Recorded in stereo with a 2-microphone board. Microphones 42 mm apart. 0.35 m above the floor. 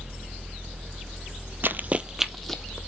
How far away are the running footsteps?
About 0.6 m.